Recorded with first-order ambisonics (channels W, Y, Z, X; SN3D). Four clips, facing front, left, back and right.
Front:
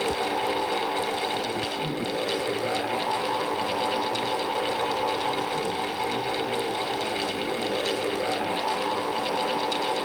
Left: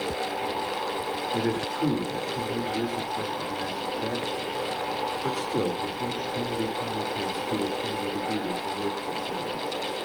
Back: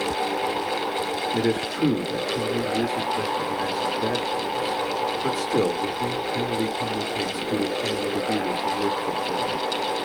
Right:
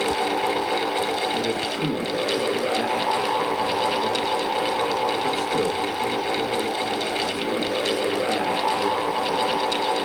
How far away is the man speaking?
About 2.5 m.